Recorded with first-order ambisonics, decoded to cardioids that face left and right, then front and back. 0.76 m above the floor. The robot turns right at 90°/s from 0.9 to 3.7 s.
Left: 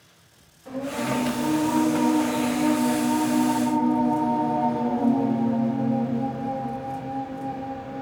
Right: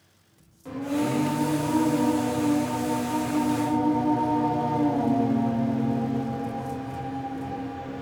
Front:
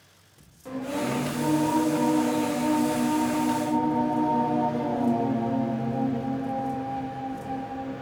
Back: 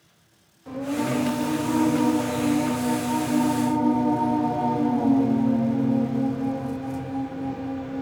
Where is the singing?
30° right, 1.2 m; by 8.0 s 140° right, 1.2 m.